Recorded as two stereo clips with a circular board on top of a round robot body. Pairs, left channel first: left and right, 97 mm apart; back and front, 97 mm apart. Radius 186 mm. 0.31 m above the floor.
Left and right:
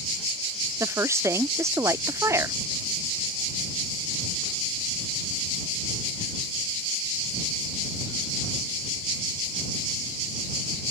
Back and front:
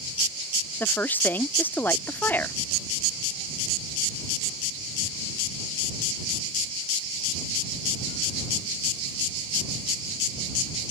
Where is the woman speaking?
125° right.